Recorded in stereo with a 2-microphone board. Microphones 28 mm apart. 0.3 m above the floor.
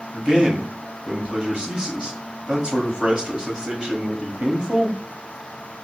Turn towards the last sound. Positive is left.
turn(degrees=-35)  # may be behind; listen again after turning